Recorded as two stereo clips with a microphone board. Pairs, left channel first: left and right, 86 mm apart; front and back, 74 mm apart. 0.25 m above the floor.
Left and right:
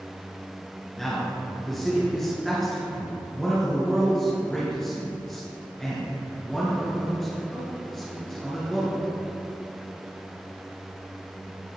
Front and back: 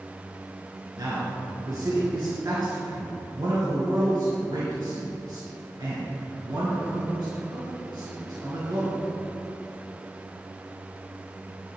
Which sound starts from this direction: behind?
A man speaking, at 1.0 s.